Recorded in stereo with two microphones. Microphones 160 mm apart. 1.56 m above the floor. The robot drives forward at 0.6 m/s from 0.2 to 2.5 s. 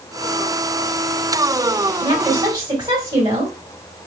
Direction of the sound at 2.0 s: 30° right (ahead or behind).